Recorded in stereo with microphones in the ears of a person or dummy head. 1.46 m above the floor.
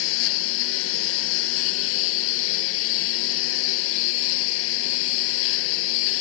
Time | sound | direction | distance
0.0 | a lawn mower | 80° left | ?